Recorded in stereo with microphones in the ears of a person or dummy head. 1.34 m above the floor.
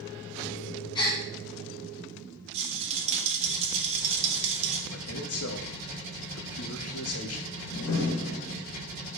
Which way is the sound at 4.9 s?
70° left (ahead or behind).